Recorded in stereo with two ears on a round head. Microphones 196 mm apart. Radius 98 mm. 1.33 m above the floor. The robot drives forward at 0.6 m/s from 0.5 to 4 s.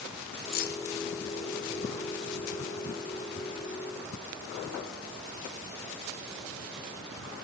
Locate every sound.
0.5 s keys jangling: 40° left (ahead or behind), 0.7 m; by 0.8 s 45° left (ahead or behind), 0.6 m